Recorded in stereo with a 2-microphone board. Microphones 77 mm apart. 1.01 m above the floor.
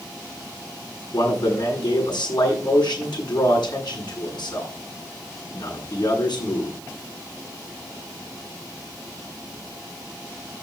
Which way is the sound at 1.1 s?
70° left (ahead or behind).